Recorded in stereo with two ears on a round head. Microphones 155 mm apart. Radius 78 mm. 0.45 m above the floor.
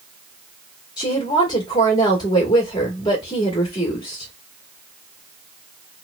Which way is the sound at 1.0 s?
25° left (ahead or behind).